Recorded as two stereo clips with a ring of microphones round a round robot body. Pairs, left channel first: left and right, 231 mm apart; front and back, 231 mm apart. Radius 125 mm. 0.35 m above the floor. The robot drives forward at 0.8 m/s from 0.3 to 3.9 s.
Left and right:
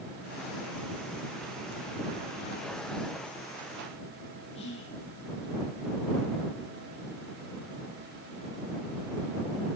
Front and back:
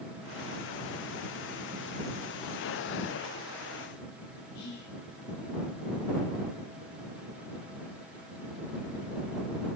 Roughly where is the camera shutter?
I don't hear a camera shutter.